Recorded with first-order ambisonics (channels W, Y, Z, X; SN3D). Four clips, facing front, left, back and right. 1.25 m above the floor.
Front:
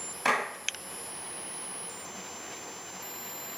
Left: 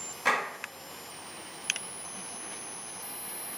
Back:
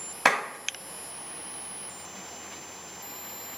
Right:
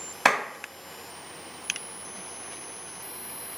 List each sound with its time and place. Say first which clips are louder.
0.2 s a clap: right 5 dB, back 4 dB; 125° right, 2.5 m